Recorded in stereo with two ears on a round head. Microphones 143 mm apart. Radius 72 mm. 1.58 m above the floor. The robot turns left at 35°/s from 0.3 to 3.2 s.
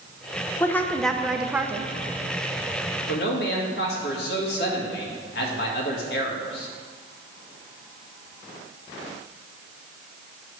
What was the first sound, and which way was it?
A woman speaking, 20° left.